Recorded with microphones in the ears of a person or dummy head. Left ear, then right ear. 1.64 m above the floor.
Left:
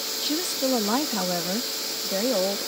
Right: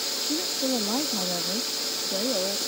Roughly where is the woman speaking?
Left.